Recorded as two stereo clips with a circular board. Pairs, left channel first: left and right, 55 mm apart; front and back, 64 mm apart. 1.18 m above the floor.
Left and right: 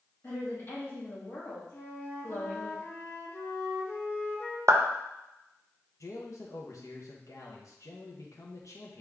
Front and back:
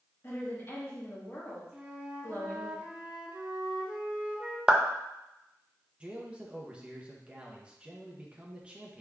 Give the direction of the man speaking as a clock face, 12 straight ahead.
8 o'clock.